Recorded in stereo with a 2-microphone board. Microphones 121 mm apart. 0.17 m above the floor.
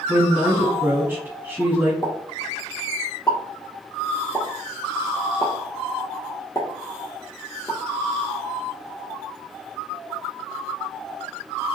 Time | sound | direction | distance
0.1 | a woman speaking | 20° right (ahead or behind) | 1.0 m
2.0 | a pop | 30° left (ahead or behind) | 1.3 m